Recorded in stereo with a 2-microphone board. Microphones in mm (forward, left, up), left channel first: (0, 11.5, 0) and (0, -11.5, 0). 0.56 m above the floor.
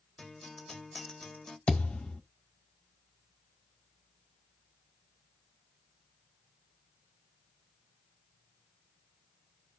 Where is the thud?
75° left (ahead or behind), 1.2 m.